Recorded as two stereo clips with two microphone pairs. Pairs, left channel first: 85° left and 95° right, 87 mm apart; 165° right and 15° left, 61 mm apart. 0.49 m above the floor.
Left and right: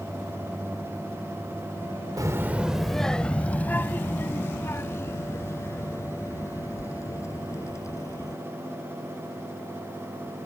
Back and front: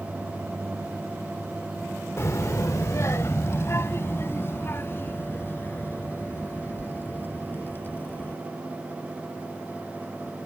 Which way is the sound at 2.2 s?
130° right.